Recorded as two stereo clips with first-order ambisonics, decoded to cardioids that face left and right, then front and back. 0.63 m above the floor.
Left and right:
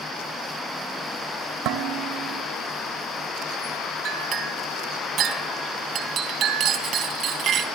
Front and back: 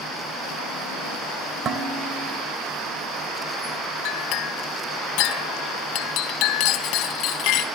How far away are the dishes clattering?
About 1.8 m.